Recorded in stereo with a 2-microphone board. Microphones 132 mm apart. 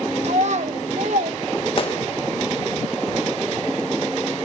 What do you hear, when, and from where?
0.2 s a child speaking: 55° right (ahead or behind), 1.3 m; by 1.4 s 70° right (ahead or behind), 1.7 m
1.8 s a gunshot: 45° left (ahead or behind), 1.4 m